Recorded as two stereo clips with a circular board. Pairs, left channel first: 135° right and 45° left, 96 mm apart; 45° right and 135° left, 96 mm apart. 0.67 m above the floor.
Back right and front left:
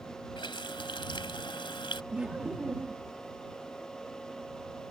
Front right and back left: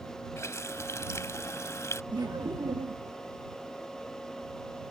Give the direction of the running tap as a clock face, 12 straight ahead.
3 o'clock.